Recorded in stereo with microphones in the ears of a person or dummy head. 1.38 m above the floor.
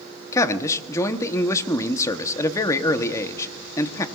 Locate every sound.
0.3 s a man speaking: 15° left (ahead or behind), 0.9 m